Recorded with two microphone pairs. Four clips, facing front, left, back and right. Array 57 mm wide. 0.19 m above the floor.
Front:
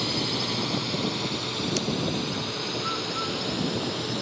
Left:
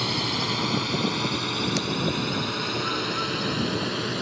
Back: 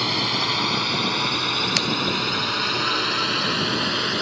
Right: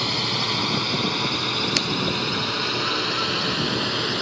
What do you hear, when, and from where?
0.0 s a drone: 165° right; by 4.2 s 160° right
1.8 s scissors: 145° right